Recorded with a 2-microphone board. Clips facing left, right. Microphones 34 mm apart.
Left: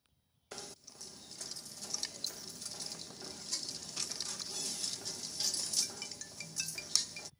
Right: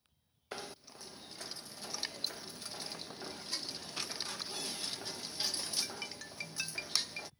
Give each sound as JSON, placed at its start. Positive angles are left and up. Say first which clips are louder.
{"t": 0.5, "sound": "knocking", "louder": "right 4 dB", "side_deg": -20}